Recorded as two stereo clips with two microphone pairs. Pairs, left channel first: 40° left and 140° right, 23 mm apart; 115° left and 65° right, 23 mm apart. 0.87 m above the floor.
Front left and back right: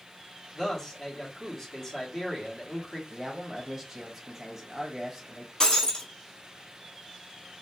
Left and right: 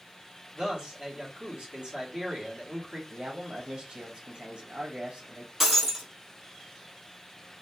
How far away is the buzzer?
No buzzer in this recording.